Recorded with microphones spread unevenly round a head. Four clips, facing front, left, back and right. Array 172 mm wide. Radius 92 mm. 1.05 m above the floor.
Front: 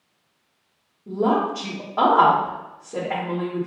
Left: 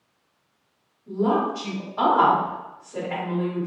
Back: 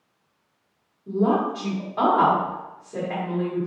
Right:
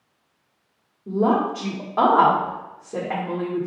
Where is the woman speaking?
65° right, 1.5 m.